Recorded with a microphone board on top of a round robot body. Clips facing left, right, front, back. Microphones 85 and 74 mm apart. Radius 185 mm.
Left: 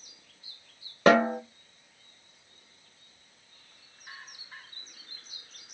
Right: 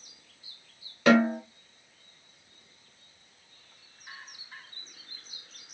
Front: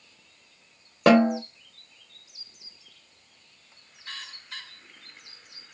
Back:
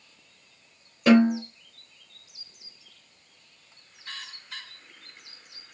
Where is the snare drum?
30° left, 1.1 m.